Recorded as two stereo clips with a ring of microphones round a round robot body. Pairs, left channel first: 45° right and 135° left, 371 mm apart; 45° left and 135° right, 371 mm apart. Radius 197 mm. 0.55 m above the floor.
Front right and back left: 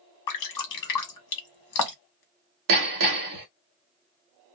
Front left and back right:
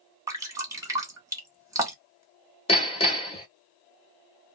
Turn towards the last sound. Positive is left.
turn(degrees=115)